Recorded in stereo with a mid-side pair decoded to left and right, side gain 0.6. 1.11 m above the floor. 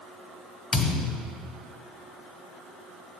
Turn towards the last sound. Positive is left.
turn(degrees=20)